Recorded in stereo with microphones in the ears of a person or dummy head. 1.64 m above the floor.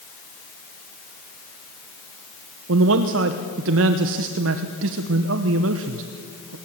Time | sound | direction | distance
2.7 | a man speaking | 75° right (ahead or behind) | 1.1 m